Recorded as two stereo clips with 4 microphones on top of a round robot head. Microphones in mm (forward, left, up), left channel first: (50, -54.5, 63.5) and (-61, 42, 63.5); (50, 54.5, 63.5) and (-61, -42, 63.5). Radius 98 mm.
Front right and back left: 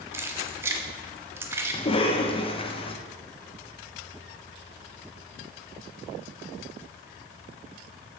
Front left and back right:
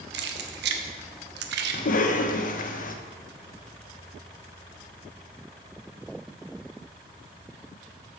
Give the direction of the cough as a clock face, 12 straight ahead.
12 o'clock.